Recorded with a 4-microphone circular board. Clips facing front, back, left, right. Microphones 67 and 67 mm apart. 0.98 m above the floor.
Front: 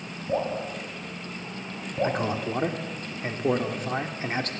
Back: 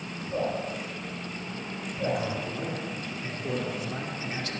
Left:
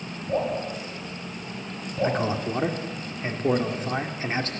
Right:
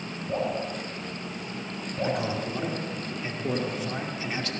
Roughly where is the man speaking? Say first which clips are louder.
Front 1 dB, left 4 dB; ahead left.